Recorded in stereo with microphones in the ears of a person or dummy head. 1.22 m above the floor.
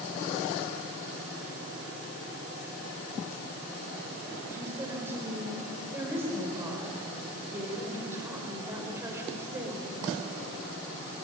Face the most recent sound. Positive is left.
turn(degrees=-15)  # may be behind; listen again after turning